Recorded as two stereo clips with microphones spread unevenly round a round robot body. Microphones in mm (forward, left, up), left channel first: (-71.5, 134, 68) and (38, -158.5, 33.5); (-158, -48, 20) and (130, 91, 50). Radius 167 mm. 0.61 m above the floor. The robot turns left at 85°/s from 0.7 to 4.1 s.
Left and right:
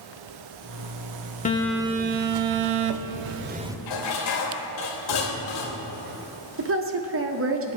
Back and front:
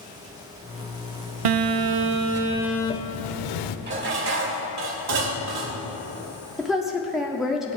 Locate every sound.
1.4 s a phone buzzing: 45° left, 0.7 m; by 3.8 s 155° right, 0.7 m
3.9 s dishes clattering: 85° left, 2 m; by 5.9 s 65° left, 2 m
6.6 s a woman speaking: 70° right, 1.6 m